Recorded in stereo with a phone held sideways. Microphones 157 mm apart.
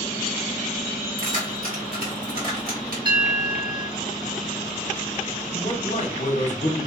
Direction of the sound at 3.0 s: 30° right (ahead or behind).